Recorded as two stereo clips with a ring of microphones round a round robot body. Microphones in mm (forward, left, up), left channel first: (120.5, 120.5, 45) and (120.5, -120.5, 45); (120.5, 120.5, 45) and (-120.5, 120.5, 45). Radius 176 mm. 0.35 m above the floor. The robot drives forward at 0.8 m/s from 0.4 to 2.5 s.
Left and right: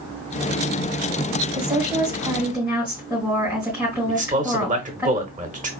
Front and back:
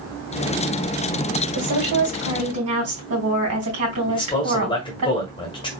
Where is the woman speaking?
165° right, 2 m; by 5.1 s 170° right, 3 m.